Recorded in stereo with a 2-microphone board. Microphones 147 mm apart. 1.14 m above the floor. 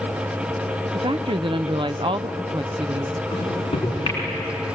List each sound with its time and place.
0.9 s a woman speaking: 35° right (ahead or behind), 0.6 m
3.3 s a microwave: 35° left (ahead or behind), 8 m